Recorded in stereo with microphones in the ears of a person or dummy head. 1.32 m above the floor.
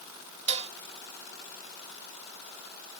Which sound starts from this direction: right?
Dishes clattering, at 0.5 s.